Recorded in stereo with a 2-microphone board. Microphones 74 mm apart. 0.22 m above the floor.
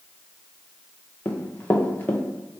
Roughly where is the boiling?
I don't hear boiling.